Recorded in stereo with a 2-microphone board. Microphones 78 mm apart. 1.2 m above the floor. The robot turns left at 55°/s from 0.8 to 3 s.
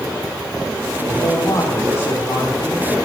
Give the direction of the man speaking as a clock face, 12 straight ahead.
9 o'clock.